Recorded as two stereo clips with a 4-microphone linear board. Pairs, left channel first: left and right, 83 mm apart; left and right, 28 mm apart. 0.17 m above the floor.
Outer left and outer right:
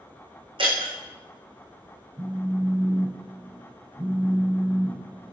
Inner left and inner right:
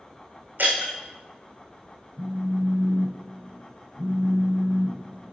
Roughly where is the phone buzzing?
Right.